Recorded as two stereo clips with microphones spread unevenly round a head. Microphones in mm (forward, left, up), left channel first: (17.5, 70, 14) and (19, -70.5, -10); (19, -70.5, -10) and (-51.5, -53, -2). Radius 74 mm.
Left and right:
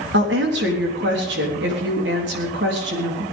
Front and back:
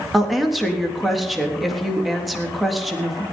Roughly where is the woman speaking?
Right.